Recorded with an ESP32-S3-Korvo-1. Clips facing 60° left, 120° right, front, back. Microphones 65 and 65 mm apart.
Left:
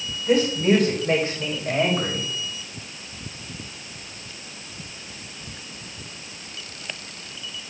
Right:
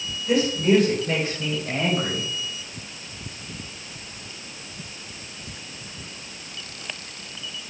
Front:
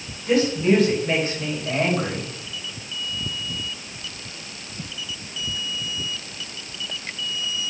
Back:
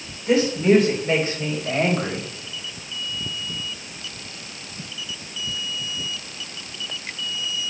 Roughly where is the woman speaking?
Left.